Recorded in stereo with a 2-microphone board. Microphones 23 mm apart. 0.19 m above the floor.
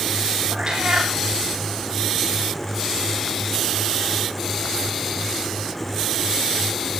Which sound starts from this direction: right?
A cat meowing, at 0.5 s.